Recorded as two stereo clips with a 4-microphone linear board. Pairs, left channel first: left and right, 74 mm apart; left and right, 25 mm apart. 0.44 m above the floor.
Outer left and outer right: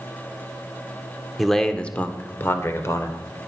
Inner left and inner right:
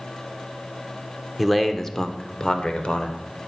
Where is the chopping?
No chopping in this recording.